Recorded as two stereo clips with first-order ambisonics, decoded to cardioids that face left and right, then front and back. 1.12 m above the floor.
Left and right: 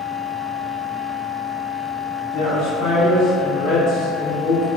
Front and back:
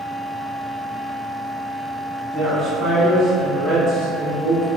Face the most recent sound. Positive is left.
turn(degrees=135)